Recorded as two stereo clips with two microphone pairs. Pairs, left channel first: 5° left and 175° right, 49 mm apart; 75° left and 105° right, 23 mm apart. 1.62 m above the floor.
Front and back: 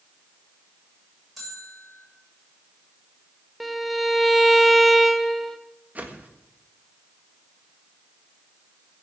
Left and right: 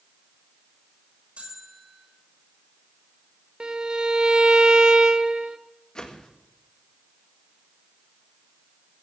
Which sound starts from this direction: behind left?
A whoosh, at 6.0 s.